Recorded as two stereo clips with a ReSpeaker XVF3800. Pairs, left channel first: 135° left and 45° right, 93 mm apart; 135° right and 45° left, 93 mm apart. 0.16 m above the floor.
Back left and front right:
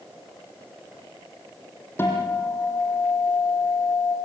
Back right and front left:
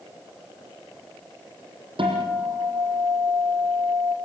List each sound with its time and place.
2.0 s a guitar: 70° left, 6.5 m